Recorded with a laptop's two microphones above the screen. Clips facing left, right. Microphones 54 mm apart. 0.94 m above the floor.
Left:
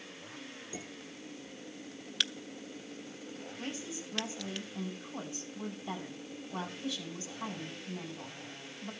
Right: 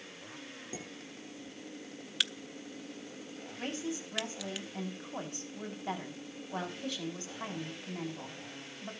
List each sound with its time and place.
0.7 s dishes clattering: 40° right (ahead or behind), 9.5 m
2.2 s a crack: 5° right (ahead or behind), 0.5 m
3.6 s a woman speaking: 45° right (ahead or behind), 8 m